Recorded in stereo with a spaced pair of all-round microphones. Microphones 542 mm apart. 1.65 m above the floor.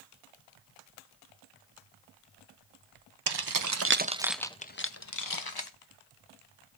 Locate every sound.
3.3 s keys jangling: 50° right (ahead or behind), 0.7 m; by 5.7 s 45° left (ahead or behind), 1.0 m